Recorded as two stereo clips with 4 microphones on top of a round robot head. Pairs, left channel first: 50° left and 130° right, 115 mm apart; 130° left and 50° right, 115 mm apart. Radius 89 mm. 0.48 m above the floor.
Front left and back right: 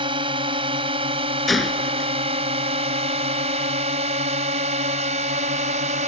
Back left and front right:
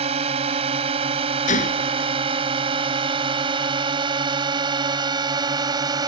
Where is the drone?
80° right; by 6.1 s 105° right.